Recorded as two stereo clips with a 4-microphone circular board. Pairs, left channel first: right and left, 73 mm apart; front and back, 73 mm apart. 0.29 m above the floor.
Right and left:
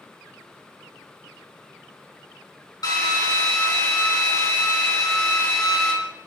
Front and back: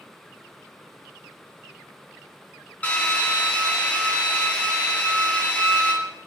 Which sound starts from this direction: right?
A drill, at 2.8 s.